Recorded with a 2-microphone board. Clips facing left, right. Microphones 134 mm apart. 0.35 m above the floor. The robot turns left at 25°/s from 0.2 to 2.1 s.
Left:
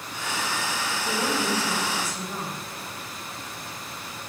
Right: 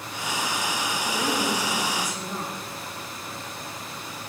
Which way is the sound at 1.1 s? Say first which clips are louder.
Even; 20° left (ahead or behind).